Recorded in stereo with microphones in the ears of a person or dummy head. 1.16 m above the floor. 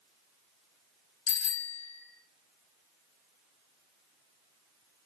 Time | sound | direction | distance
1.3 | a bicycle bell | 75° left (ahead or behind) | 3.5 m